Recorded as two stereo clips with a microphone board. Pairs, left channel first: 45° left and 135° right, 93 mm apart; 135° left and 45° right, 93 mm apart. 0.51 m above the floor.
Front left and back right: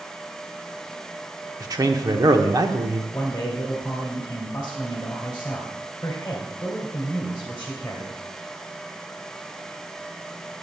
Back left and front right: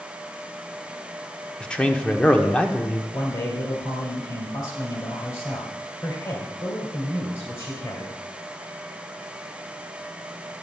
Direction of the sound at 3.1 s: 105° left.